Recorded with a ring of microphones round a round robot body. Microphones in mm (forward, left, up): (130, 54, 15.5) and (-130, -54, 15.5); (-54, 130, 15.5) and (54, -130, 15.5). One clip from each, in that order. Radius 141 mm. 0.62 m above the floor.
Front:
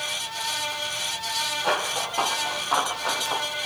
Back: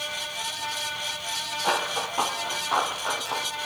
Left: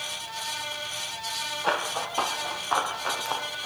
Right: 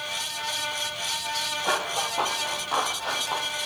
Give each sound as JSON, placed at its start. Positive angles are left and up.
{"t": 1.6, "sound": "running footsteps", "azimuth_deg": 105, "distance_m": 6.5}